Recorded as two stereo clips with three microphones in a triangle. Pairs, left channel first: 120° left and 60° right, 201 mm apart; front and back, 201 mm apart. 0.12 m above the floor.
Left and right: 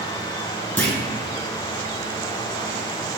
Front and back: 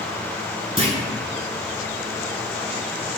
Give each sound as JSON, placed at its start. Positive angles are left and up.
{"t": 0.8, "sound": "a clunk", "azimuth_deg": -170, "distance_m": 0.7}